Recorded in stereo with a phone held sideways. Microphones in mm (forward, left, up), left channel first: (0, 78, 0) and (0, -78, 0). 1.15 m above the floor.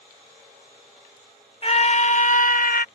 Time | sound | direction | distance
1.6 | a scream | 40° left (ahead or behind) | ?